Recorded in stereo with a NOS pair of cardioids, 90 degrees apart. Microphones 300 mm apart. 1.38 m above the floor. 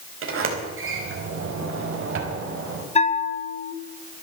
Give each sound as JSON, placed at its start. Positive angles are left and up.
{"t": 0.2, "sound": "a sliding door", "azimuth_deg": -50, "distance_m": 4.0}
{"t": 3.0, "sound": "a bell", "azimuth_deg": 20, "distance_m": 1.6}